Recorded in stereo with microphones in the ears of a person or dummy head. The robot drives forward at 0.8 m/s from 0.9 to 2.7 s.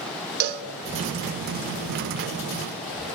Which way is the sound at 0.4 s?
50° right (ahead or behind).